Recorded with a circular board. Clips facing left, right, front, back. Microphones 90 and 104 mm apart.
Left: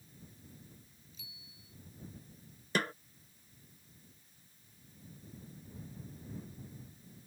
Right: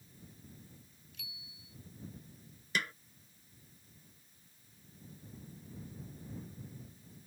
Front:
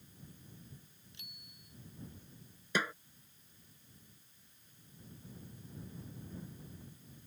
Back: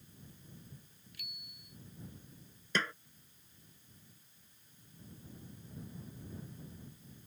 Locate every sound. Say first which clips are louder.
1.1 s a bicycle bell: right 5 dB, back 4 dB; 65° right
2.8 s a snare drum: left 4 dB, front 1 dB; 70° left